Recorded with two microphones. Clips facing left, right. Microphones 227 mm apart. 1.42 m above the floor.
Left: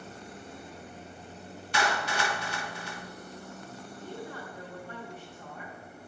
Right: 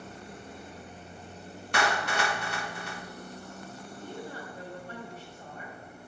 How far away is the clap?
About 1.1 m.